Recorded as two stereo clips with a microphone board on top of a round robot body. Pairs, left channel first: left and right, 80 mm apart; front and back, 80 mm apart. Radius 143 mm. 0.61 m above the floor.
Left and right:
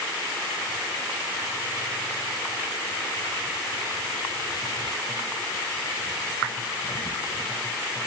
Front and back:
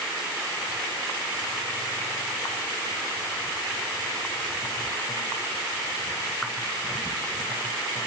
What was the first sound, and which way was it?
Only background noise.